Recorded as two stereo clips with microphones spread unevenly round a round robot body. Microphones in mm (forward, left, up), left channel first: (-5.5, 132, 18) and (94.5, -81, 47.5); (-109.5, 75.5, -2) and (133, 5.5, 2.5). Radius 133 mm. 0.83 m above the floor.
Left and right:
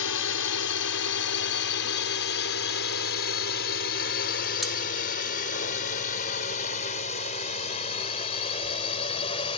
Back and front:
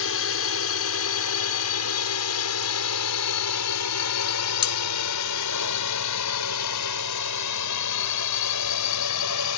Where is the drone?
140° left; by 9.6 s 175° right.